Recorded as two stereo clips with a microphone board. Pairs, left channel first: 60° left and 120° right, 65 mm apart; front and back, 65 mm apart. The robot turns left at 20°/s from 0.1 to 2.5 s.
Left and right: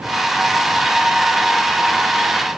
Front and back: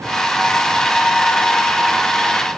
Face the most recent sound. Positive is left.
No sound to turn to.